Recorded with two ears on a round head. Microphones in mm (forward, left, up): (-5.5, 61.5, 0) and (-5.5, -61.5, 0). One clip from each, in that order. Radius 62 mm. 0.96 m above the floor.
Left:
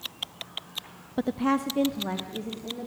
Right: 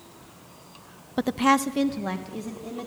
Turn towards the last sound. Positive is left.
turn(degrees=-55)  # may be behind; listen again after turning